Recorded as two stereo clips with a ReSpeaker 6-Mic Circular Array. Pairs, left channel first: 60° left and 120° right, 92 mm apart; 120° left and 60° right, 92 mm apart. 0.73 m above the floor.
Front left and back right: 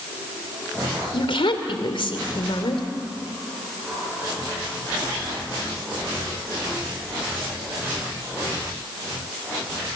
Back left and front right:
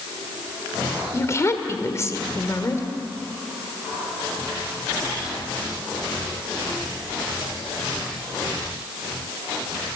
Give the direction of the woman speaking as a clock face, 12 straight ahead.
10 o'clock.